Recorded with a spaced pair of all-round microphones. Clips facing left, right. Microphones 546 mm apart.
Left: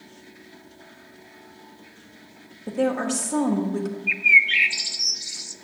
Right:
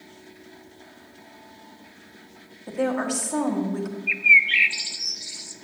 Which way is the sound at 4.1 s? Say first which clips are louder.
Left 1 dB; 65° left (ahead or behind).